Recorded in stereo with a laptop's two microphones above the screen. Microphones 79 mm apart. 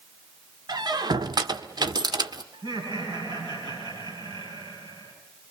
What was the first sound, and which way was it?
A squeak, 60° right (ahead or behind).